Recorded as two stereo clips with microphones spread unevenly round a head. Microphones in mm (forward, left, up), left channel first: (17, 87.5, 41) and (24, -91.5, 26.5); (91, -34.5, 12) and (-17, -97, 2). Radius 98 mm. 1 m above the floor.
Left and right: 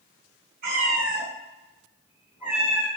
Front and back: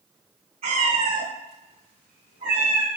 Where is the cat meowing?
130° right, 2 m; by 2.9 s 170° left, 1.1 m.